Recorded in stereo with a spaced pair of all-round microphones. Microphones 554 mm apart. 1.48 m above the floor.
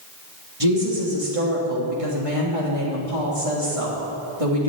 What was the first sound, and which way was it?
A woman speaking, 75° right (ahead or behind).